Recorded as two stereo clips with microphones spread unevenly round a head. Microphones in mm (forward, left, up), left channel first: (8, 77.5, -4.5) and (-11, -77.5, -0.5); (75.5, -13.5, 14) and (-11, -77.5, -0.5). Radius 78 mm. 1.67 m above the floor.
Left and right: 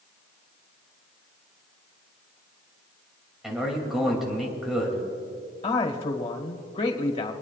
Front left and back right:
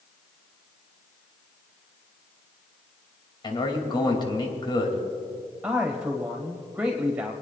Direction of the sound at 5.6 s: 135° left.